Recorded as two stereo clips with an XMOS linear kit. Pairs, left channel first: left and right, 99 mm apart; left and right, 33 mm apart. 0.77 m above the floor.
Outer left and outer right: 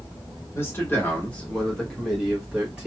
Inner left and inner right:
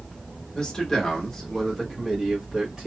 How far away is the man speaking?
About 1.2 m.